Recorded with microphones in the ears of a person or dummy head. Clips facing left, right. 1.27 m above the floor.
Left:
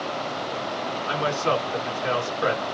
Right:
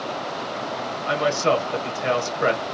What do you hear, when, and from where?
1.1 s a man speaking: 70° right (ahead or behind), 1.4 m